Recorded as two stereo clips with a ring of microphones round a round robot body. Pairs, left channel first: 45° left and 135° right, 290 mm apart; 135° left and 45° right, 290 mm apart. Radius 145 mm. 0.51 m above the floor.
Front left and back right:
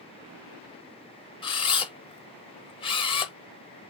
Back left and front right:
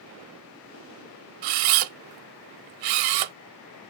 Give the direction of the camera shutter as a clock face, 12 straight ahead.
1 o'clock.